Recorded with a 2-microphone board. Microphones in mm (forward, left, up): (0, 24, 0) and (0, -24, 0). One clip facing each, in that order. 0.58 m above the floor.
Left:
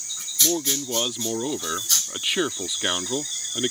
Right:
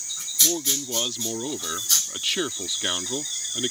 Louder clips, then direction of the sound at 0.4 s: Left 2 dB; 15° left (ahead or behind).